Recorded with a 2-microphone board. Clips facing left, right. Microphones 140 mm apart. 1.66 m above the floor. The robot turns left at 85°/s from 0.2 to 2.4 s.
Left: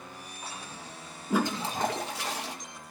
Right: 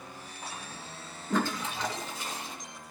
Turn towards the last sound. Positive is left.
turn(degrees=80)